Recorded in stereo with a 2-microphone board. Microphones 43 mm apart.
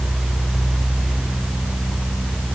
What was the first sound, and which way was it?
Only background noise.